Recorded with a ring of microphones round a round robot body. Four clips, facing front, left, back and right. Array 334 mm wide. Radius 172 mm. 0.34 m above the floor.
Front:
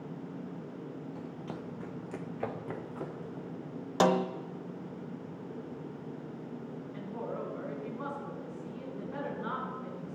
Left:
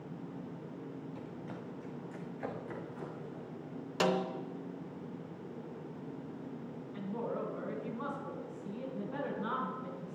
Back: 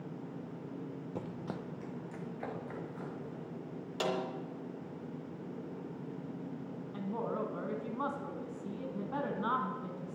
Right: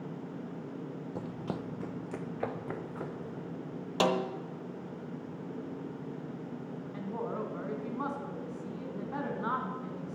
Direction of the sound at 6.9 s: 145° right.